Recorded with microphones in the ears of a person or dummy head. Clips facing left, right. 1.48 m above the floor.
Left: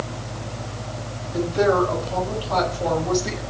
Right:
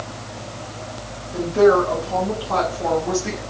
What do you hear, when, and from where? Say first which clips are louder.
1.3 s a woman speaking: right 4 dB; 55° right (ahead or behind), 7 m; by 3.4 s 45° right (ahead or behind), 7.5 m